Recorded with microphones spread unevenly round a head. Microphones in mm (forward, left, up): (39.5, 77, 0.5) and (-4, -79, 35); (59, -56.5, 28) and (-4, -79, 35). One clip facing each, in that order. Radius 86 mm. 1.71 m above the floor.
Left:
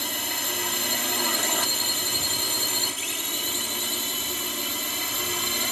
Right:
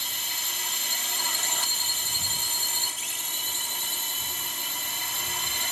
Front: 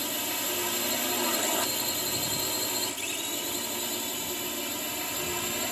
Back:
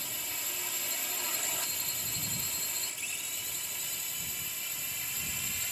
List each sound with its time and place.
0.0 s a drone: 40° left; by 5.7 s 65° left